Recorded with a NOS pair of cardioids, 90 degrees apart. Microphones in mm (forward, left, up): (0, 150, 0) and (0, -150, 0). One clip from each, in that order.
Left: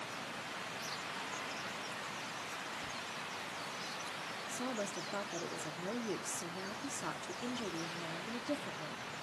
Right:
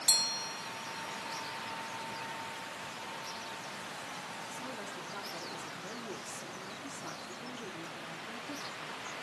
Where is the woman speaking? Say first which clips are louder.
Left 2 dB; 35° left, 2 m.